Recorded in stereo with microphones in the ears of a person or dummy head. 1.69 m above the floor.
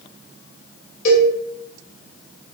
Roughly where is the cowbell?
Left.